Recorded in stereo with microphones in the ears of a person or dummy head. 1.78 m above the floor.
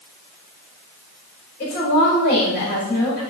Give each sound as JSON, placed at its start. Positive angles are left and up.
{"t": 1.6, "sound": "a woman speaking", "side_deg": 55, "distance_m": 4.5}